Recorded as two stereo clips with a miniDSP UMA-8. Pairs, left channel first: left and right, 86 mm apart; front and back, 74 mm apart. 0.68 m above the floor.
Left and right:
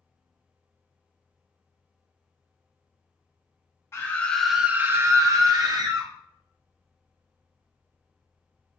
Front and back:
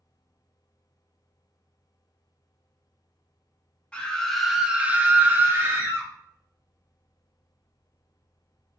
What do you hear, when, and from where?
3.9 s a scream: 65° left, 0.5 m; by 6.1 s 120° right, 1.1 m